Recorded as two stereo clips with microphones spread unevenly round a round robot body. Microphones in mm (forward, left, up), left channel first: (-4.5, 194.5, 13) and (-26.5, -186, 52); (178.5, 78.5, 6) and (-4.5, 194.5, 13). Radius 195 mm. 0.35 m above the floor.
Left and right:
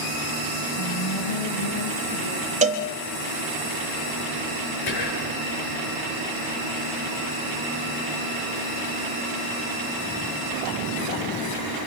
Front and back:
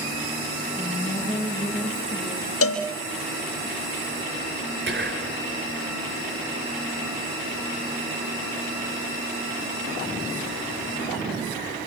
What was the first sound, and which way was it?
A woman speaking, 50° left.